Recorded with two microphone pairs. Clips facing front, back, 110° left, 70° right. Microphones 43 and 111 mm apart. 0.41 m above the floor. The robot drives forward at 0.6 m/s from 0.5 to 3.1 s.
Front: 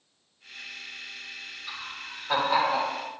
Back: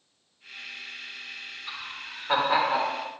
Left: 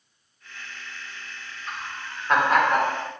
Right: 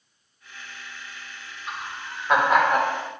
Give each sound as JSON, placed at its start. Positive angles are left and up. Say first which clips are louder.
{"t": 1.7, "sound": "laughter", "louder": "even, right 1 dB", "azimuth_deg": -125, "distance_m": 1.4}